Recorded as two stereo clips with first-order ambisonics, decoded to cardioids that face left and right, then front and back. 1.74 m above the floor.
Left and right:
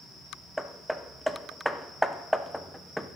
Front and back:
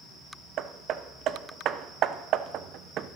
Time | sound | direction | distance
0.6 | hammering | 175° right | 0.8 m